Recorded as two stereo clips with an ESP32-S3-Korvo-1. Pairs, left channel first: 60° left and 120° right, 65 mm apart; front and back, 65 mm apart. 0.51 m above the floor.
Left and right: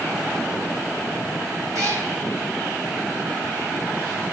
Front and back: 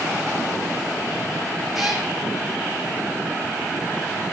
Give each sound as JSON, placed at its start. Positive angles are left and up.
{"t": 1.7, "sound": "a cat meowing", "azimuth_deg": -90, "distance_m": 3.0}